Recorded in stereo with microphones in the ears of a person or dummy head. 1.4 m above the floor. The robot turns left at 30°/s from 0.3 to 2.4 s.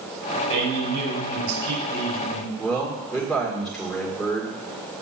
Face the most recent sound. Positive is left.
turn(degrees=0)  # may be behind; listen again after turning